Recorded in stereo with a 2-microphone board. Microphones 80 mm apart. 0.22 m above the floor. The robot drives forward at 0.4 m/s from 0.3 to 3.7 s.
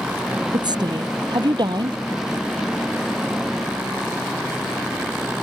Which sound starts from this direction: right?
A woman speaking, at 0.5 s.